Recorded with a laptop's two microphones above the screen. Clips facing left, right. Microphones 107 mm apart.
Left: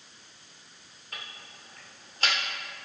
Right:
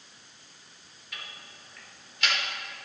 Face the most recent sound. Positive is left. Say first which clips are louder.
# left 1 dB
turn(degrees=40)  # may be behind; listen again after turning